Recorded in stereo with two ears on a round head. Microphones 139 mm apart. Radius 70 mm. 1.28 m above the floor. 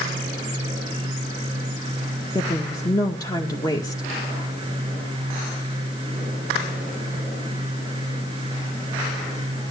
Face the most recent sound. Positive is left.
turn(degrees=25)  # may be behind; listen again after turning